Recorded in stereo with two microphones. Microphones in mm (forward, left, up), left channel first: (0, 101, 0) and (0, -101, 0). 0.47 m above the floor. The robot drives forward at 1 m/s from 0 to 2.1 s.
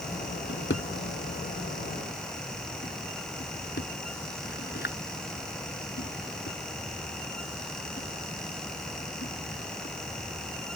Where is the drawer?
65° left (ahead or behind); by 9.9 s 60° left (ahead or behind).